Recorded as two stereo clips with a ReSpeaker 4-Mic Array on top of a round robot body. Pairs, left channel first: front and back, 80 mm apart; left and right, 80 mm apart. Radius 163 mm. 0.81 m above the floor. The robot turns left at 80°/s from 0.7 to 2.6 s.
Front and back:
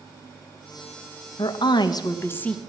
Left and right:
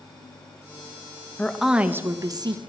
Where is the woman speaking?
15° left, 1.0 m; by 2.6 s 80° right, 1.0 m.